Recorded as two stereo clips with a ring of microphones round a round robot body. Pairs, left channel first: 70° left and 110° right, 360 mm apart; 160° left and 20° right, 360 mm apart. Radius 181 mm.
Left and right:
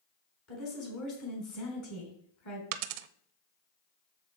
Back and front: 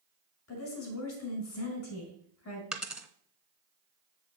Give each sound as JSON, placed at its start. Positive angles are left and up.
{"t": 0.5, "sound": "a woman speaking", "azimuth_deg": 105, "distance_m": 4.0}
{"t": 2.7, "sound": "a dropped coin", "azimuth_deg": -110, "distance_m": 0.6}